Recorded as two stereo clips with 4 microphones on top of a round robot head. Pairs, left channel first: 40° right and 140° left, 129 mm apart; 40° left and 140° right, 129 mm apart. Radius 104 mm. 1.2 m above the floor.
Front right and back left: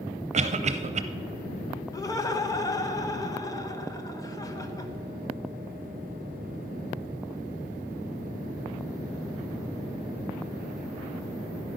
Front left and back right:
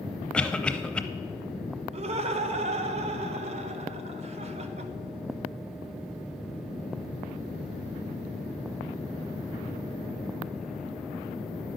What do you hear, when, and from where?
0.3 s a cough: 120° left, 0.6 m
1.9 s laughter: 105° right, 0.9 m